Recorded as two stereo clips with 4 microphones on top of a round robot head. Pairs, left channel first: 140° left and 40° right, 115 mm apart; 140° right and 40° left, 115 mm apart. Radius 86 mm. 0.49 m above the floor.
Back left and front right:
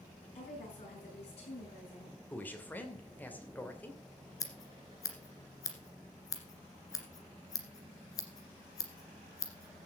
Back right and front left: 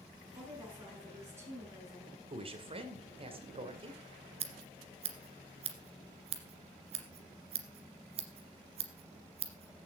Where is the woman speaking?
105° left, 8 m.